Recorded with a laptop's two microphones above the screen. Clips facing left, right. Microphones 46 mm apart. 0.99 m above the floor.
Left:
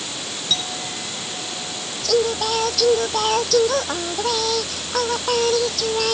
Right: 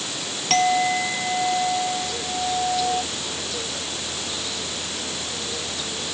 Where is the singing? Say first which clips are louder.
Left 7 dB; 85° left.